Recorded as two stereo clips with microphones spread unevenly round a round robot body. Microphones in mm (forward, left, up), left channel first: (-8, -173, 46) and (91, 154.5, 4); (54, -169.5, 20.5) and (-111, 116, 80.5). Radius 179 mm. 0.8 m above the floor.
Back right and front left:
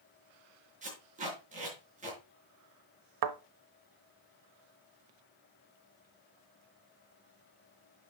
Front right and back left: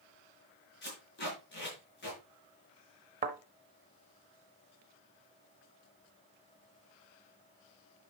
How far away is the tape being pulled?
About 5 m.